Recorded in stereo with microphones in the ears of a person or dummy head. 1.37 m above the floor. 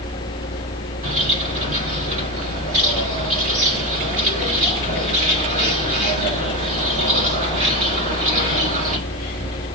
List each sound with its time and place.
1.0 s a bird: 45° right (ahead or behind), 4 m